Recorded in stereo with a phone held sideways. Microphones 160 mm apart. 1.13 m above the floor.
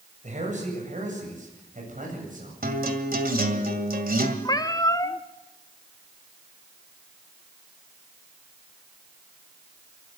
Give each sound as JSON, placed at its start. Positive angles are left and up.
{"t": 0.2, "sound": "a man speaking", "side_deg": -50, "distance_m": 7.5}
{"t": 2.6, "sound": "a guitar", "side_deg": -65, "distance_m": 2.0}
{"t": 4.5, "sound": "a cat meowing", "side_deg": 25, "distance_m": 0.8}